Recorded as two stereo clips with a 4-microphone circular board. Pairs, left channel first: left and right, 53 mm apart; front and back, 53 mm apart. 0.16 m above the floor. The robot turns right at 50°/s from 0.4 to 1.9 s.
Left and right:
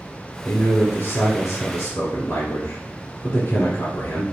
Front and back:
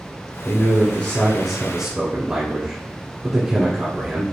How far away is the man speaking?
About 1.5 m.